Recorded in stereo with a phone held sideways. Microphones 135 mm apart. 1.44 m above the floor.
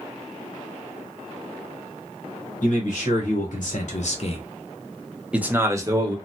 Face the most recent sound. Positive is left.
turn(degrees=-30)  # may be behind; listen again after turning